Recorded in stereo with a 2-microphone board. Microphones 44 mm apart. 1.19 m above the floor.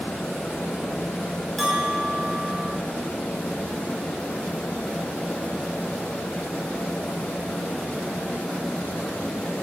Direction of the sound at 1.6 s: 5° left (ahead or behind).